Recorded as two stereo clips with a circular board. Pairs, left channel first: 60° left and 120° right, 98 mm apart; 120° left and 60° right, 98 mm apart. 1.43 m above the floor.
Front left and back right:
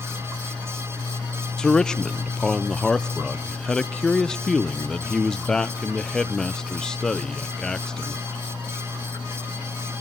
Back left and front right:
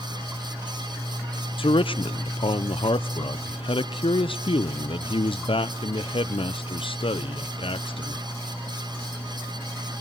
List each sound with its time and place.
1.6 s a man speaking: 145° left, 0.8 m